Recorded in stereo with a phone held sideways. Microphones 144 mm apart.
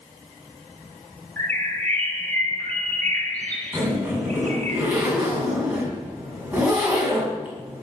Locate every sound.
1.4 s a bird: 15° left (ahead or behind), 3.5 m
3.7 s a zipper: 10° right (ahead or behind), 6 m